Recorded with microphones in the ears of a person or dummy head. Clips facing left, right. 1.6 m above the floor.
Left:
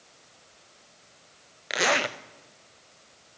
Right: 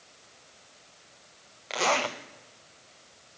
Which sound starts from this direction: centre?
A zipper, at 1.7 s.